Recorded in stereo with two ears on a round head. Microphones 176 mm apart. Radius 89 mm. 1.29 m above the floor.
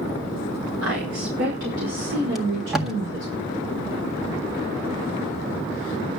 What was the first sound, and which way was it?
A woman speaking, 80° right.